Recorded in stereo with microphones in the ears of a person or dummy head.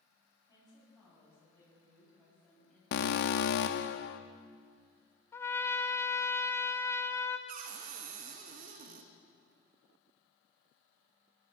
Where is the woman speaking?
25° left (ahead or behind), 8.5 m; by 2.8 s 10° left (ahead or behind), 9 m.